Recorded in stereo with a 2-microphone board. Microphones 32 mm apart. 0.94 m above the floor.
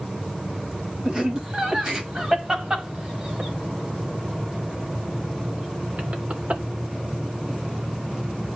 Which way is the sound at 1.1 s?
25° right (ahead or behind).